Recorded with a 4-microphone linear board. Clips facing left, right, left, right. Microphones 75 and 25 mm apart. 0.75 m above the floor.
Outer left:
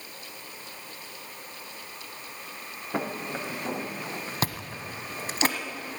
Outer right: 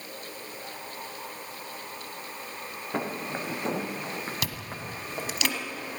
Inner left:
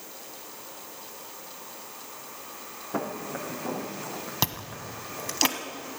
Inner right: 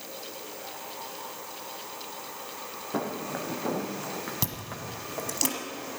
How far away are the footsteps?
About 1.7 m.